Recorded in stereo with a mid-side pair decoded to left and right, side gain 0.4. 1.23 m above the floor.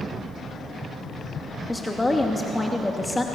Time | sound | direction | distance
1.7 | a woman speaking | 15° left | 2.5 m